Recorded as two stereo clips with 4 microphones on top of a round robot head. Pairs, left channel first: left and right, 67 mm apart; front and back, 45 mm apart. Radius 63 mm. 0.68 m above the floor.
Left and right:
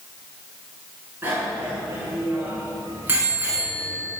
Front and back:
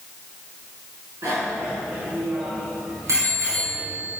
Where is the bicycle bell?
150° right, 6.5 m.